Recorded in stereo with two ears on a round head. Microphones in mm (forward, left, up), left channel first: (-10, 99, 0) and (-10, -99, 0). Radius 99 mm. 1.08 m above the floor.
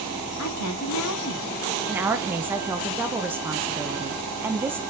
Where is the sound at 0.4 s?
75° left (ahead or behind), 2 m.